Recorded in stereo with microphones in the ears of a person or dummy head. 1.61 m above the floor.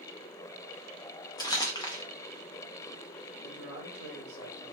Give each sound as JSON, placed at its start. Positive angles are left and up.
{"t": 1.4, "sound": "crumpling", "side_deg": 15, "distance_m": 0.5}
{"t": 3.4, "sound": "a man speaking", "side_deg": 70, "distance_m": 1.3}